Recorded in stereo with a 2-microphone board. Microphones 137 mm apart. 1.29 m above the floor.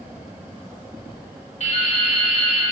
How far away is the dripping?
About 2.5 m.